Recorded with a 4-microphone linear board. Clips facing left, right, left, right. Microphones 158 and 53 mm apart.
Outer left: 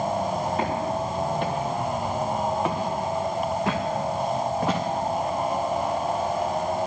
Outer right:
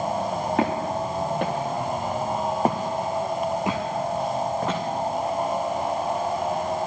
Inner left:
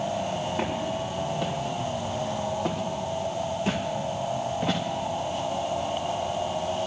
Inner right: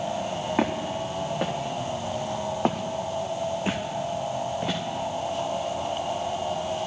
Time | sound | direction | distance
0.6 | footsteps | 85° right | 2.5 m